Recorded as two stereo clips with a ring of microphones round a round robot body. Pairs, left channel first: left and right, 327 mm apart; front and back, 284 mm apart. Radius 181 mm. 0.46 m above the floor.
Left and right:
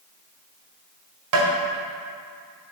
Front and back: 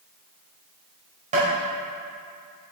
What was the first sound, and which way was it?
Tapping, 115° right.